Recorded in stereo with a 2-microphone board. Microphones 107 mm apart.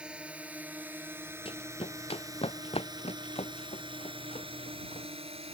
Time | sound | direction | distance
0.0 | a drone | 10° right (ahead or behind) | ?
1.4 | running footsteps | 55° left (ahead or behind) | ?